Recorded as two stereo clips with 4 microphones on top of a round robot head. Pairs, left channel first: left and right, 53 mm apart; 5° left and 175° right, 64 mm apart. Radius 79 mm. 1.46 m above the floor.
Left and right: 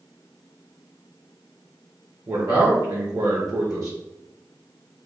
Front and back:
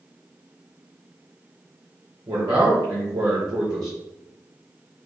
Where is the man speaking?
130° right, 0.7 m.